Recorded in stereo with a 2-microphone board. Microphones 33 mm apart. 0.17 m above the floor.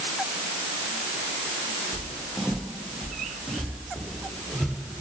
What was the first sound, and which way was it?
Footsteps, centre (ahead or behind).